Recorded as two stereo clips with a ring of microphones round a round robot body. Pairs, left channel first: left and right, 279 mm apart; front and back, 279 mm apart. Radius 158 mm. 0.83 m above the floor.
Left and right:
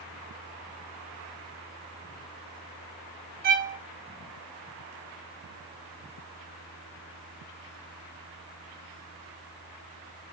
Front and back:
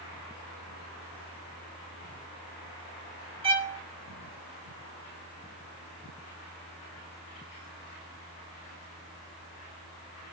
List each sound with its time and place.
3.4 s a violin: 120° right, 0.9 m